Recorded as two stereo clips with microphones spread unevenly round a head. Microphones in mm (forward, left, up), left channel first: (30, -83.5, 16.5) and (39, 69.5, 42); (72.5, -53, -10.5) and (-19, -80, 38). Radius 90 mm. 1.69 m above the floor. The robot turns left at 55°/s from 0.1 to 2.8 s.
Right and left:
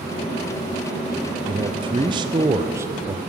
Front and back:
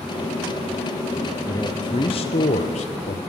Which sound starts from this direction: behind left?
A man speaking, at 1.5 s.